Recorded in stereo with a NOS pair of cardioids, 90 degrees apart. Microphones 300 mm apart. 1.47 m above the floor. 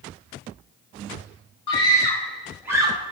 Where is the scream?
15° left, 1.8 m; by 3.1 s 20° right, 1.5 m.